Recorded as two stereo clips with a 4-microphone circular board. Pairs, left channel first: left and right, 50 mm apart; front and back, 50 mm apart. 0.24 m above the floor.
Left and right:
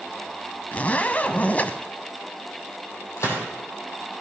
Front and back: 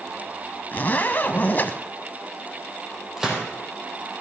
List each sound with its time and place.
0.7 s a zipper: 40° left, 0.7 m
3.2 s a gunshot: 100° left, 3 m